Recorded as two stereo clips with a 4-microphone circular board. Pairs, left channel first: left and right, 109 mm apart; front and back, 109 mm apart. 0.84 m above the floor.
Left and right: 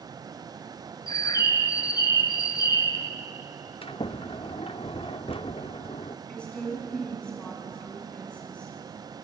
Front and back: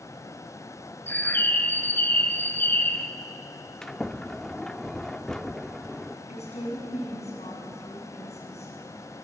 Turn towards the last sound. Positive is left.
turn(degrees=10)